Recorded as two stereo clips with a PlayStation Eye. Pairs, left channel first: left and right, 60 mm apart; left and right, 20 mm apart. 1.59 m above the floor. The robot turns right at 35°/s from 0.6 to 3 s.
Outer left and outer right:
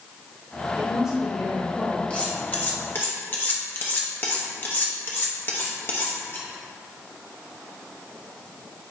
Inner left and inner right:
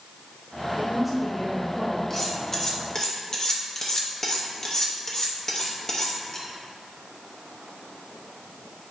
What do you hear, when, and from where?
0.8 s a woman speaking: 20° right, 1.7 m; by 2.0 s 20° left, 1.7 m
2.1 s cutlery clinking: 20° left (ahead or behind), 1.1 m; by 6.5 s 40° left (ahead or behind), 1.1 m